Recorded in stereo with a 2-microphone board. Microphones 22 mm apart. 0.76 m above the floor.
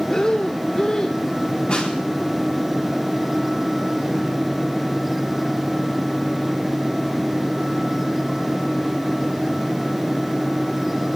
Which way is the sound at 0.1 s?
25° left (ahead or behind).